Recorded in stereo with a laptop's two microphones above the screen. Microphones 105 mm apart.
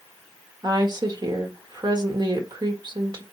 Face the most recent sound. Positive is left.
turn(degrees=-45)  # may be behind; listen again after turning